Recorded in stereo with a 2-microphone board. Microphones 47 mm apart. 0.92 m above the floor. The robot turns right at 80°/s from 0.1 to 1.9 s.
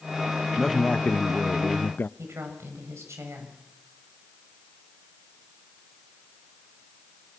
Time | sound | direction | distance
0.6 | a man speaking | 5° left | 0.5 m
2.2 | a woman speaking | 80° right | 6 m